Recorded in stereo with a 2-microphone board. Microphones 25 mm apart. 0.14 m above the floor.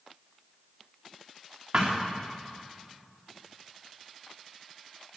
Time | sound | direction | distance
1.7 | a thud | 60° right (ahead or behind) | 4 m